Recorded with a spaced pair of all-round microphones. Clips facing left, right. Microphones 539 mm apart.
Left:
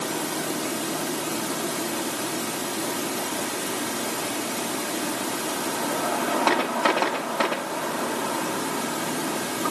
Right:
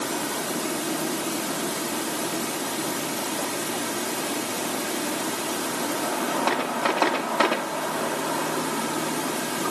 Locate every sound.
Only background noise.